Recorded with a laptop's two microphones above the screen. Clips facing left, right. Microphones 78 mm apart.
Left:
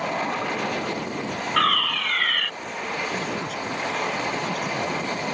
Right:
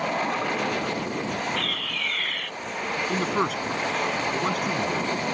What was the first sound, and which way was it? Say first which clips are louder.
A fire alarm: left 9 dB; 70° left (ahead or behind).